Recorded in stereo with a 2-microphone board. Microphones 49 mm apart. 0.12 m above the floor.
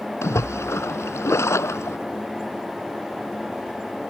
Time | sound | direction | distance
0.2 | a splash | 70° left (ahead or behind) | ?